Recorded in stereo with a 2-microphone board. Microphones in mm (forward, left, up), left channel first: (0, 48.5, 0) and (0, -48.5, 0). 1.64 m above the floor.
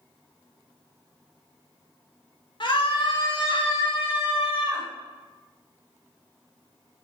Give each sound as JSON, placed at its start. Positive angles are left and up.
{"t": 2.6, "sound": "a scream", "side_deg": 60, "distance_m": 2.5}